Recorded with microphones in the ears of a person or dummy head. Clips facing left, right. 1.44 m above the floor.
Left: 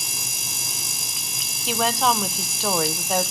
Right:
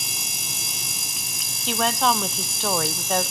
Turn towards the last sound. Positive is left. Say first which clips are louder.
# even
turn(degrees=5)  # may be behind; listen again after turning